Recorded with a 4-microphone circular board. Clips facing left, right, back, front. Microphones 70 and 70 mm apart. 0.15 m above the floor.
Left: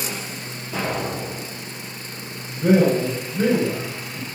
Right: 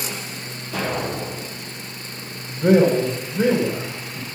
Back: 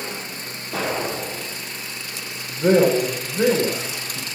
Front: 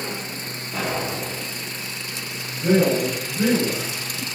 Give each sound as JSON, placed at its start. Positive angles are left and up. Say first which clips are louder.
{"t": 0.7, "sound": "an explosion", "louder": "right 1 dB, back 2 dB", "azimuth_deg": 165, "distance_m": 4.5}
{"t": 2.5, "sound": "a man speaking", "louder": "right 2 dB, back 3 dB", "azimuth_deg": -170, "distance_m": 6.0}